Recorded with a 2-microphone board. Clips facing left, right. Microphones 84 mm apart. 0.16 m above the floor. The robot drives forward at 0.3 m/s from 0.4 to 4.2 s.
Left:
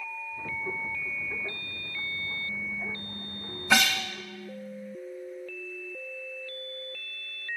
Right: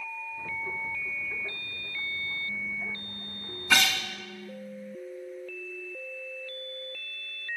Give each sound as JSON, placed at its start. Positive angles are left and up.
{"t": 3.7, "sound": "a guitar", "side_deg": 10, "distance_m": 0.8}